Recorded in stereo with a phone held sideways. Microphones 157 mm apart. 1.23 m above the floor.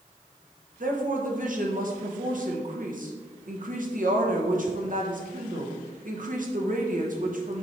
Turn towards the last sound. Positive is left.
turn(degrees=-65)  # may be behind; listen again after turning